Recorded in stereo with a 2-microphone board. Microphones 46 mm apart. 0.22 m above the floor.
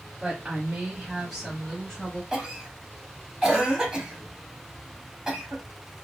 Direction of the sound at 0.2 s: 25° right (ahead or behind).